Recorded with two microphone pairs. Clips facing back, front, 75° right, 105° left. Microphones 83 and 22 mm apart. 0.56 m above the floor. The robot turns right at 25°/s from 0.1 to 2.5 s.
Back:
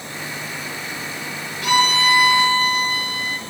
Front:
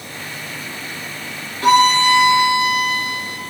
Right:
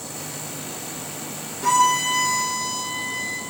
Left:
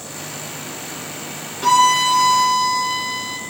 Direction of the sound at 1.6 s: 55° left.